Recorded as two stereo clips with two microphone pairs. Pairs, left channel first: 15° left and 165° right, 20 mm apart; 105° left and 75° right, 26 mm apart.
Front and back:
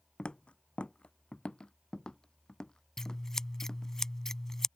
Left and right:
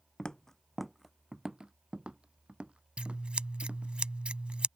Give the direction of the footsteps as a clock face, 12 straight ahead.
10 o'clock.